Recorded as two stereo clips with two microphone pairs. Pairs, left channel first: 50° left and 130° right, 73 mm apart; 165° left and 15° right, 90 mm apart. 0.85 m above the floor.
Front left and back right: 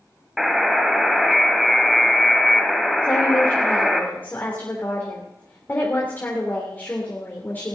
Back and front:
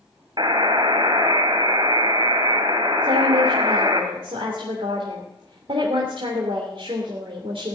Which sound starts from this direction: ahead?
A woman speaking, at 3.0 s.